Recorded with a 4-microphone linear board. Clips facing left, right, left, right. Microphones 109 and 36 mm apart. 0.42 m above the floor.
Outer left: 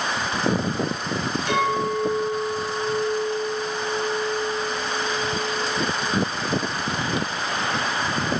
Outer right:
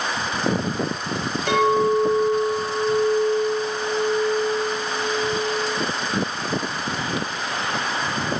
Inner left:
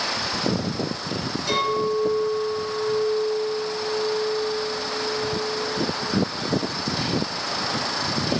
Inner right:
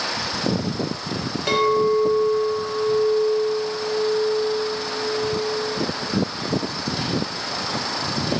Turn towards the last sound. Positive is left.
turn(degrees=-60)  # may be behind; listen again after turning